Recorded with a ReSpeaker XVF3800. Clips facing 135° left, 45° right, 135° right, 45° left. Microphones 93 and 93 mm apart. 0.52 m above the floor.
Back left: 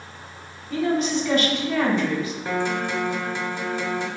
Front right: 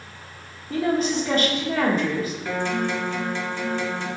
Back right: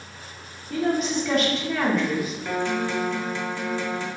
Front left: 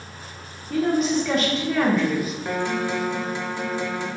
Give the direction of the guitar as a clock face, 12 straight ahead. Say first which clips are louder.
Back left 1 dB, even; 9 o'clock.